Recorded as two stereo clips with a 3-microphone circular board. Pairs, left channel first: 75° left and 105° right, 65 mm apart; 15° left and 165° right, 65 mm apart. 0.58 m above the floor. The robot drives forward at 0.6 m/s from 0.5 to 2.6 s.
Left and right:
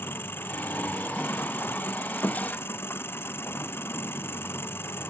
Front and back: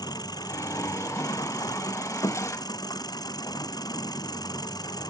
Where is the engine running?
20° left.